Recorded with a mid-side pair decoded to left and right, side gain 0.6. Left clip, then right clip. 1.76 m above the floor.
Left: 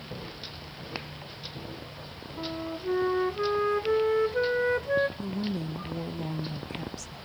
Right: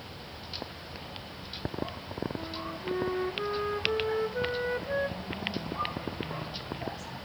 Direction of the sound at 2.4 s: 30° left.